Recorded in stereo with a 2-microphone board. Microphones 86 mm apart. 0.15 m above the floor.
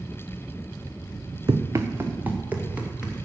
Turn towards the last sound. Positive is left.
turn(degrees=-10)  # may be behind; listen again after turning